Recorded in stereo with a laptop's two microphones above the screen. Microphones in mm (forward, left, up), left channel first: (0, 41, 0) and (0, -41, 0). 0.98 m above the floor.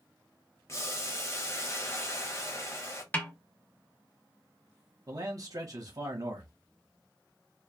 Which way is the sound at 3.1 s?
20° left (ahead or behind).